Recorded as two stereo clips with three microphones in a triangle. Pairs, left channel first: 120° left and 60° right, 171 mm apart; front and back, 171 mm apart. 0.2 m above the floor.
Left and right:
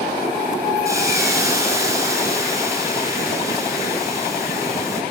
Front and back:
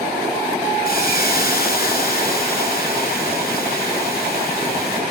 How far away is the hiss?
About 3 m.